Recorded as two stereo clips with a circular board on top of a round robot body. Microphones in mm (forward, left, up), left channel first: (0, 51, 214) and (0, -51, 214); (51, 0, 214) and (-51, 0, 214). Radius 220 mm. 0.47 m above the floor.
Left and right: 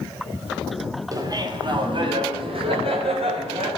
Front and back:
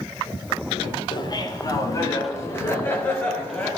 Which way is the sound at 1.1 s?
40° right.